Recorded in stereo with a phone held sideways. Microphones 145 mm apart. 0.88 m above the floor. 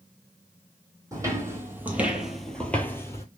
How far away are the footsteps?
About 1.4 m.